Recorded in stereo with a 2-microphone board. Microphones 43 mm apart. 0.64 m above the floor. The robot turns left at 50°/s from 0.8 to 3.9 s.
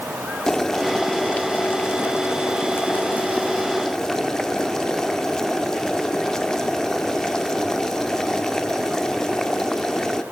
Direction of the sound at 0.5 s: 170° left.